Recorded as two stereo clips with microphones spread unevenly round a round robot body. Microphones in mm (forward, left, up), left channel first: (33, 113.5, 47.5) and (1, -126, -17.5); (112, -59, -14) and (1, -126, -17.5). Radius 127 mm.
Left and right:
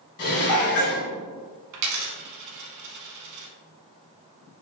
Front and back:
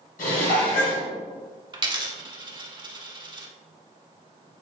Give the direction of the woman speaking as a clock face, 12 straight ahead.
No woman speaking in this recording.